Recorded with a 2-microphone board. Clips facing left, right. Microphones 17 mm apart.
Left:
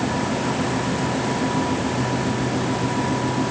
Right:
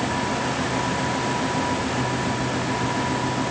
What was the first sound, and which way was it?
Only background noise.